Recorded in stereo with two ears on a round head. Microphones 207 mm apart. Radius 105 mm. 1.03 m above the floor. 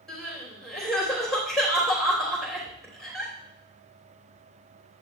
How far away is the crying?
About 3 m.